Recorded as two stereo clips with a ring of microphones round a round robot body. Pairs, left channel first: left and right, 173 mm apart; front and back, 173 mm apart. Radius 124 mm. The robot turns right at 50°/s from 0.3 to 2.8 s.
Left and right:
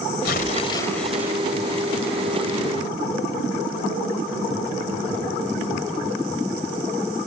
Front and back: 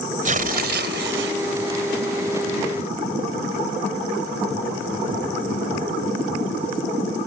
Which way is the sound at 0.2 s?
140° left.